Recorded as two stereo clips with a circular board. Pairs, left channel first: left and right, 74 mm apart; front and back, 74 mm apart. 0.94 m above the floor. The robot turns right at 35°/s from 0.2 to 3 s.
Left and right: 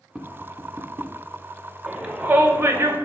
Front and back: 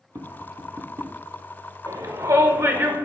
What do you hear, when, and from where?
0.1 s tapping: 170° right, 0.6 m; by 1.1 s 135° right, 0.6 m
1.9 s a shout: 170° right, 1.1 m; by 3.0 s 130° right, 1.1 m